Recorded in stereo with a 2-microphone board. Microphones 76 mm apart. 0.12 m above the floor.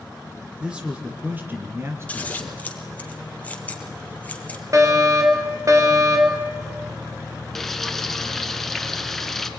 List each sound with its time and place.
0.6 s a man speaking: 10° right (ahead or behind), 1.8 m; by 2.7 s 40° right (ahead or behind), 2 m
2.1 s scissors: 20° left (ahead or behind), 2.5 m
4.7 s a fire alarm: 45° right (ahead or behind), 3.5 m
7.5 s frying: 5° left (ahead or behind), 1.4 m